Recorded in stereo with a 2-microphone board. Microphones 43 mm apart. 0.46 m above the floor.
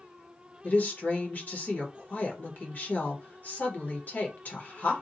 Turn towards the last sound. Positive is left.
turn(degrees=40)  # may be behind; listen again after turning